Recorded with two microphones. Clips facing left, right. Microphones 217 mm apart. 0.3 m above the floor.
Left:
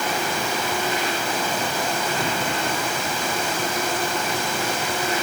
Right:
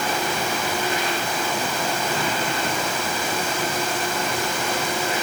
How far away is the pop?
I don't hear a pop.